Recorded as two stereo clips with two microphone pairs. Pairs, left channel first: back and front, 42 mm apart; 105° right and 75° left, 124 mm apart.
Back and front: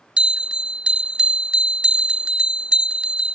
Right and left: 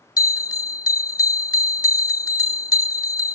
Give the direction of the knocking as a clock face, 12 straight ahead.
No knocking in this recording.